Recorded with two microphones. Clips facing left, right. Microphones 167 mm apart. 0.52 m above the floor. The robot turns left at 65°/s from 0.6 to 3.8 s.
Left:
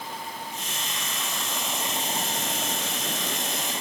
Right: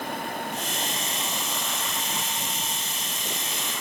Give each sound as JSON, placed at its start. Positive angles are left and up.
{"t": 0.0, "sound": "running water", "azimuth_deg": -120}